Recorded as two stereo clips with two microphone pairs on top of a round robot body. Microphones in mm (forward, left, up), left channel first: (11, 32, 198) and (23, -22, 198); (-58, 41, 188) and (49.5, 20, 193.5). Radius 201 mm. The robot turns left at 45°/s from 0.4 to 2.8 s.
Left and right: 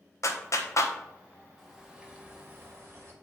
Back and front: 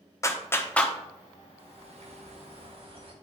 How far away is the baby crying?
No baby crying in this recording.